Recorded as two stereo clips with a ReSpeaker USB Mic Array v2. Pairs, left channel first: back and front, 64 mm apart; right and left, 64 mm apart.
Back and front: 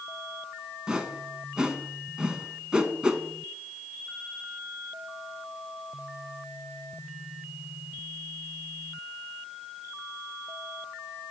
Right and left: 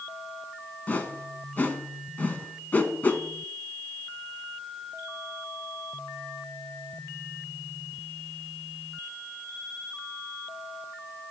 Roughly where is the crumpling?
I don't hear crumpling.